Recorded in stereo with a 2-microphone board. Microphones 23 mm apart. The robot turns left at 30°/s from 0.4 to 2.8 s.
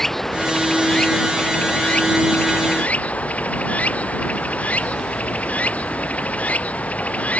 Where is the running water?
165° left; by 7.4 s 95° left.